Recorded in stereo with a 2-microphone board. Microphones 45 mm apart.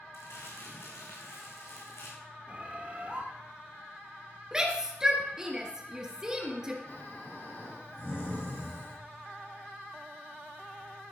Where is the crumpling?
85° left, 4 m.